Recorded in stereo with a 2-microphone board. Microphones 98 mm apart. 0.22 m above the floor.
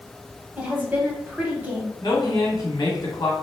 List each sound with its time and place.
0.6 s a woman speaking: 20° right (ahead or behind), 1.0 m
2.0 s a woman speaking: 45° left (ahead or behind), 1.3 m